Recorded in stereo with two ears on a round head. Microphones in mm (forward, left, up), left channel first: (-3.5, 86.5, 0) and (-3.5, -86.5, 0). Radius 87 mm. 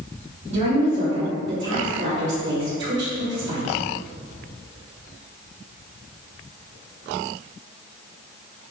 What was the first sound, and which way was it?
A woman speaking, 60° right (ahead or behind).